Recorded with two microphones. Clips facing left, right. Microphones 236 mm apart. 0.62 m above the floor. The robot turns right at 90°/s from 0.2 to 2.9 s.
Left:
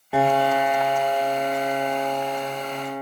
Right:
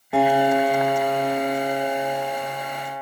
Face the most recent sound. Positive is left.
turn(degrees=60)